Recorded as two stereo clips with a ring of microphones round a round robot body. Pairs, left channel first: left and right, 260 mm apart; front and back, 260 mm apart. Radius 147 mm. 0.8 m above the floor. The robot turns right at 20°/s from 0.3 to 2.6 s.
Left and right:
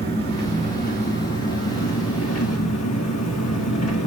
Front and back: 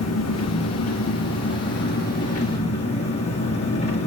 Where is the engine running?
20° left, 1.4 m; by 4.1 s 70° left, 1.4 m.